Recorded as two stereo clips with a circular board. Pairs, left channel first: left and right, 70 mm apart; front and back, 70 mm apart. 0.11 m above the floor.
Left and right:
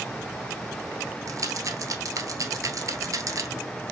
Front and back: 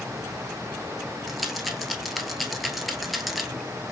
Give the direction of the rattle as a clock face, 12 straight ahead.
3 o'clock.